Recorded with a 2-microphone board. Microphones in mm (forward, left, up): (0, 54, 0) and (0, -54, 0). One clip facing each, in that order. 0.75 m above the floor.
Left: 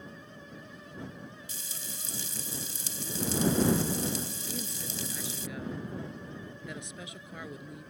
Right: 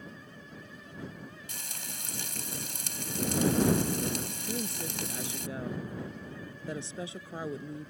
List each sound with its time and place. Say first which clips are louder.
1.5 s frying: right 1 dB; 65° right (ahead or behind)
4.5 s a woman speaking: right 4 dB; 30° right (ahead or behind)